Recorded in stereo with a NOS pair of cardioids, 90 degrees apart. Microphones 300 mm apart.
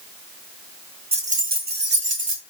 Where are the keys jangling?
20° right, 1.4 m; by 2.4 s 45° right, 2.5 m.